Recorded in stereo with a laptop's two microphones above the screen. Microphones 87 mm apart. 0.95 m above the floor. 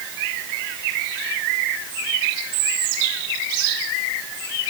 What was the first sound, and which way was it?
Only background noise.